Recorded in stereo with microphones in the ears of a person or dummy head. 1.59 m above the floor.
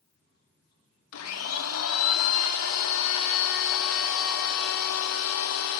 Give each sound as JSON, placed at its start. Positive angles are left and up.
{"t": 1.1, "sound": "a blender", "side_deg": 80, "distance_m": 0.9}